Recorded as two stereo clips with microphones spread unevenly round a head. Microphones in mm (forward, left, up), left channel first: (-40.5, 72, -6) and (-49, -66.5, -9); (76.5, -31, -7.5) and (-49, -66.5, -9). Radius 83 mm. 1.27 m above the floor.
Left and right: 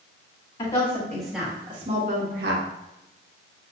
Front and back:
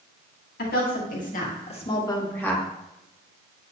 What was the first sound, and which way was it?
A woman speaking, 20° left.